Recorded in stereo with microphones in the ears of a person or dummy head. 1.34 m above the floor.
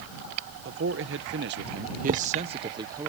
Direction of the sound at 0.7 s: 70° right (ahead or behind).